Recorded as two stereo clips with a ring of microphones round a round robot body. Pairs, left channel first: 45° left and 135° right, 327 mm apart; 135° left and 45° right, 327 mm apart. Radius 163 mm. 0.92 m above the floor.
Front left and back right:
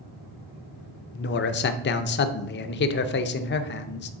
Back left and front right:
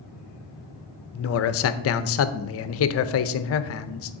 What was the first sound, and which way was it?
A man speaking, 95° left.